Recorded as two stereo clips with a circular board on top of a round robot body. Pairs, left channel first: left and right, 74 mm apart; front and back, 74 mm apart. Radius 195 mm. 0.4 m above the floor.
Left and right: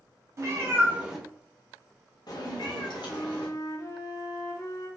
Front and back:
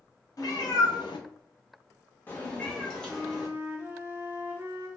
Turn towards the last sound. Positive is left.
turn(degrees=120)